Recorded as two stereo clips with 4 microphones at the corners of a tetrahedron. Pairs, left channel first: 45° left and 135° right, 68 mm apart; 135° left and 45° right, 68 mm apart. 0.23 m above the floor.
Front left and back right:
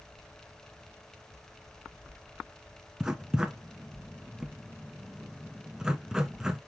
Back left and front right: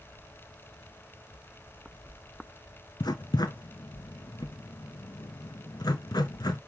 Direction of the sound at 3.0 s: 145° left.